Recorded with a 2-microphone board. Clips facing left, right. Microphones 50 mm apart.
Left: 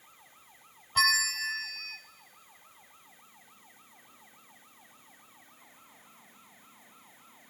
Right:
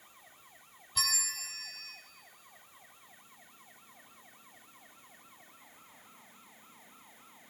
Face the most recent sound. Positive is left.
turn(degrees=45)  # may be behind; listen again after turning